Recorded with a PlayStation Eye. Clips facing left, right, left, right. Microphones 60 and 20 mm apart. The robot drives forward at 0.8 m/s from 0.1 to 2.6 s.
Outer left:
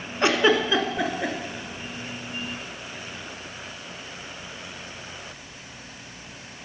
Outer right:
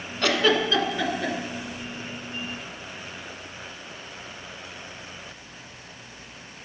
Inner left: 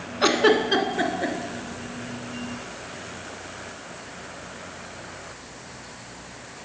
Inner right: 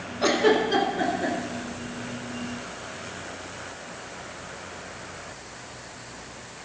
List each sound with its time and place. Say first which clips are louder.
0.2 s a giggle: outer left 2 dB, inner left 2 dB; 25° left (ahead or behind), 1.1 m; by 1.4 s 15° left (ahead or behind), 1.9 m